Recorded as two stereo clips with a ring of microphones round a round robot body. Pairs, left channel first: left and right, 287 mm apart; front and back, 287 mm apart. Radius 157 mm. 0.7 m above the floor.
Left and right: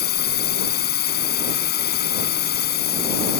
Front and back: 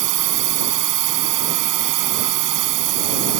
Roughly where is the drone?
Behind left.